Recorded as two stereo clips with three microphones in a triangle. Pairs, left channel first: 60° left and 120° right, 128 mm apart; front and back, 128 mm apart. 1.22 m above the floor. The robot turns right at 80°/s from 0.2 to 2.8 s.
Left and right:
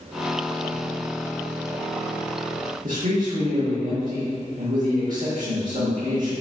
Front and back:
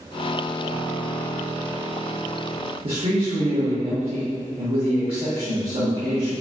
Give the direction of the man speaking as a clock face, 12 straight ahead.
5 o'clock.